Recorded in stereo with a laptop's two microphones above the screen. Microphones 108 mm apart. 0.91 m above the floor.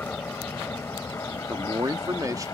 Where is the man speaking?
35° right (ahead or behind).